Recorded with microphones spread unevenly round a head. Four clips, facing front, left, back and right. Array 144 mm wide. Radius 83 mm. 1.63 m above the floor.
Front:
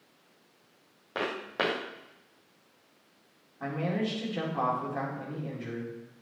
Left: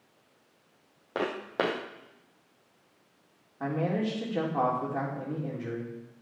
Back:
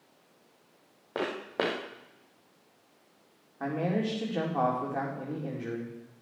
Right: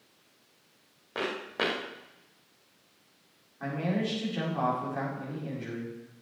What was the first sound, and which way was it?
Footsteps, 135° left.